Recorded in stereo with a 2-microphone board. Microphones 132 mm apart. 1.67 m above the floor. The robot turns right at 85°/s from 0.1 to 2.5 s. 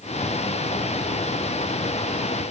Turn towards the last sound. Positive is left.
No sound to turn to.